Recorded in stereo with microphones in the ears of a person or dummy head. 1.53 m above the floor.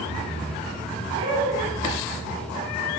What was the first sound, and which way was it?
Laughter, 65° right (ahead or behind).